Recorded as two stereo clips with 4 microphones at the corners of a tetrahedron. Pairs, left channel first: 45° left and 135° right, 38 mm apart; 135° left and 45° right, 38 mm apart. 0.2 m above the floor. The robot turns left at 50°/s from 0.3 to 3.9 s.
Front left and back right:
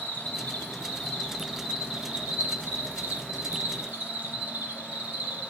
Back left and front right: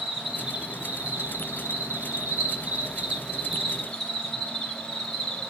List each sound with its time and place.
0.0 s an insect: 30° left, 1.8 m; by 5.5 s 150° right, 1.8 m